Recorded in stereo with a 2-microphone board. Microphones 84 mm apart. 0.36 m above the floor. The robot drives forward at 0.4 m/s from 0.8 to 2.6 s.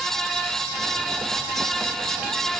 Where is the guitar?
No guitar in this recording.